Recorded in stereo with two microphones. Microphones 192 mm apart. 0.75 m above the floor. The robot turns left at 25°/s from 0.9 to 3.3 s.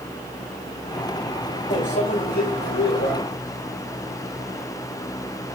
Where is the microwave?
140° left, 3 m; by 3.1 s 100° left, 3 m.